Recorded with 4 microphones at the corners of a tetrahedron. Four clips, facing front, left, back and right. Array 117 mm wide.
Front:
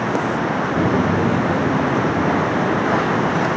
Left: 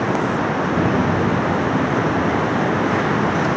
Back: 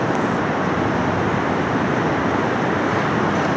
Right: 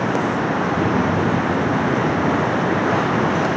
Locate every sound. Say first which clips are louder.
0.8 s footsteps: left 2 dB, front 2 dB; 10° left, 0.8 m; by 3.5 s 20° right, 3 m